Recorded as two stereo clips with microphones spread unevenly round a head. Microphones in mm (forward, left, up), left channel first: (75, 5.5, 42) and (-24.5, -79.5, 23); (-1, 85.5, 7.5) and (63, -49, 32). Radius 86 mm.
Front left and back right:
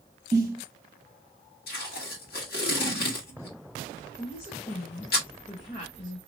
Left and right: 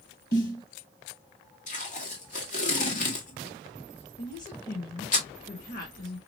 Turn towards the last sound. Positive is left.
turn(degrees=95)